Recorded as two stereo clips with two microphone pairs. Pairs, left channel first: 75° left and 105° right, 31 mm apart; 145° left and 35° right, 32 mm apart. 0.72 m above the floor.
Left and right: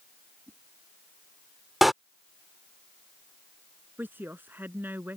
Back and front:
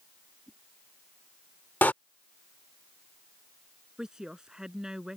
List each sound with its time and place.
0.5 s a whoosh: 125° right
1.8 s a door slam: 175° left
4.0 s a woman speaking: 105° right